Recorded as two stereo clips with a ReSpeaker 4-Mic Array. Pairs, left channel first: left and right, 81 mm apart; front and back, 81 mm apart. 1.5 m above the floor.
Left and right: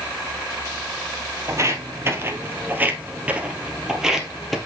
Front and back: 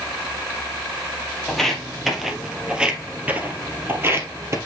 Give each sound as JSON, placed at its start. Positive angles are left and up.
{"t": 1.5, "sound": "footsteps", "azimuth_deg": -80, "distance_m": 1.8}